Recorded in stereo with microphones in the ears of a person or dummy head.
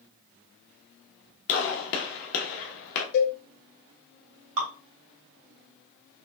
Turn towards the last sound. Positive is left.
turn(degrees=-80)